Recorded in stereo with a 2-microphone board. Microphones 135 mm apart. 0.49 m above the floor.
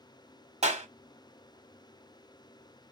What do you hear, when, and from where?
0.6 s a clap: 50° right (ahead or behind), 0.9 m